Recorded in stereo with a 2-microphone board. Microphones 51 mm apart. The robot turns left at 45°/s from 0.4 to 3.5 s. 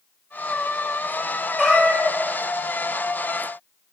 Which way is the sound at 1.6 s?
5° right (ahead or behind).